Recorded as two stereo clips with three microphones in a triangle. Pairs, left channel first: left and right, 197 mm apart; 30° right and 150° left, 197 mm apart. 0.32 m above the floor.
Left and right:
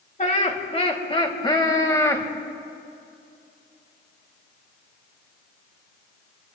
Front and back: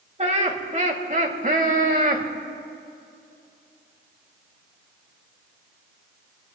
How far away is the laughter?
About 1.8 m.